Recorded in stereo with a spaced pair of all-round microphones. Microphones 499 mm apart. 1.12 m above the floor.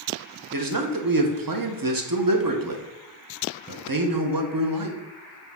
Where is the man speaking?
45° right (ahead or behind), 0.6 m.